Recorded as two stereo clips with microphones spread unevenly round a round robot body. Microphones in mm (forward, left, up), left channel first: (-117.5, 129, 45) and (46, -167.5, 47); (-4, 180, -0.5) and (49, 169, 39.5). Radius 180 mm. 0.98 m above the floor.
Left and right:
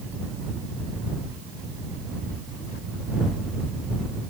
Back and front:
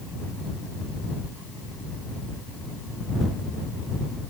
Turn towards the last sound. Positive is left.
No sound to turn to.